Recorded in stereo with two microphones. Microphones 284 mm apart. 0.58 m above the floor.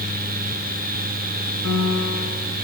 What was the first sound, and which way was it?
A piano, 60° right (ahead or behind).